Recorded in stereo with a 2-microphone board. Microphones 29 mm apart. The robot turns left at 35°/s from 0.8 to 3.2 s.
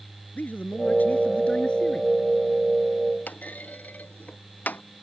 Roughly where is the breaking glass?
I don't hear breaking glass.